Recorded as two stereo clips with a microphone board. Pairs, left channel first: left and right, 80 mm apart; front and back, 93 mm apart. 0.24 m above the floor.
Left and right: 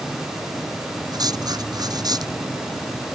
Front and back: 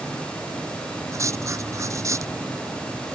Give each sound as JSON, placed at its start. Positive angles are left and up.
{"t": 1.1, "sound": "writing", "azimuth_deg": -125}